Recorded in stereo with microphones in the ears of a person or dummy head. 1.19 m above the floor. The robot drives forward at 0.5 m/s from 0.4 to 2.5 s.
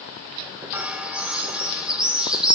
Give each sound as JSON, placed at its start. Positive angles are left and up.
{"t": 0.7, "sound": "a bird", "side_deg": -10, "distance_m": 0.7}